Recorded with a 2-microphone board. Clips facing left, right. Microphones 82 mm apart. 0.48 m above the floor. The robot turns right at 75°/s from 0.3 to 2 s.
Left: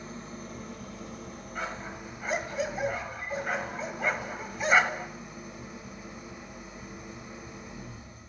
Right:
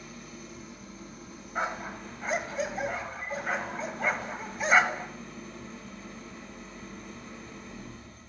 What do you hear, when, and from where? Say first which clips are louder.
0.0 s an engine running: left 4 dB; 35° left, 1.0 m; by 8.3 s 165° left, 1.0 m
1.6 s a dog barking: right 4 dB; 30° right (ahead or behind), 1.0 m; by 5.1 s centre (ahead or behind), 1.0 m